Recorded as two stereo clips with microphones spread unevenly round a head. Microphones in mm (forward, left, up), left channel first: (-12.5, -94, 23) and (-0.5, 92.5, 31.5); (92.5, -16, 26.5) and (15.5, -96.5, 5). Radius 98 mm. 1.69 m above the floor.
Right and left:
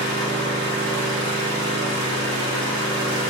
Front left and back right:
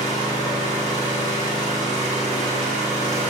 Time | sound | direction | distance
0.0 | an engine running | 80° left | 3 m